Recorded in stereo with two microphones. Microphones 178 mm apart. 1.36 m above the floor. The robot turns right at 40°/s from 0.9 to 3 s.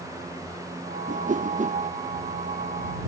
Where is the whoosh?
45° right (ahead or behind).